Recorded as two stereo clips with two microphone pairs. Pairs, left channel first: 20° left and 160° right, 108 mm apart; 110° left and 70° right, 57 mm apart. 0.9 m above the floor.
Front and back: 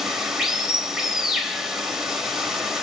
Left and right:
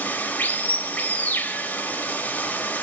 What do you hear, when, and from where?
0.0 s running water: 120° left, 0.7 m